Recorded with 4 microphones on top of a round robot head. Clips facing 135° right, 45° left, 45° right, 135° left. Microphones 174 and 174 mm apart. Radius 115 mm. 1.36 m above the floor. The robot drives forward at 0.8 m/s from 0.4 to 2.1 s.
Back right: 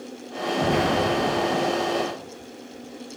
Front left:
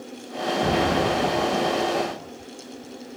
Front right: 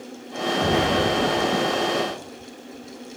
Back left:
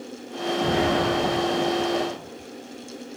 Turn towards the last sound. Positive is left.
turn(degrees=-120)